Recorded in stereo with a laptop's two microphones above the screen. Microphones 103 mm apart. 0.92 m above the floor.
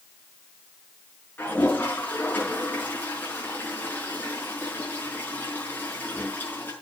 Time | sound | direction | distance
1.4 | a toilet flushing | 20° left (ahead or behind) | 5.5 m